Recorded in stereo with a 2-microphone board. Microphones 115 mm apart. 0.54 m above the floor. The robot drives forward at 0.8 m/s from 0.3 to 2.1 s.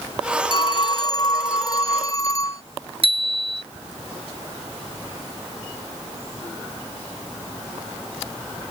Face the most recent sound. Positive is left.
turn(degrees=-50)  # may be behind; listen again after turning